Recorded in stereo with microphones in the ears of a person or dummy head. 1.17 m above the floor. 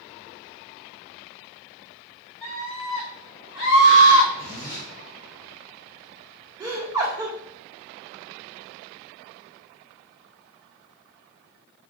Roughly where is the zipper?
Left.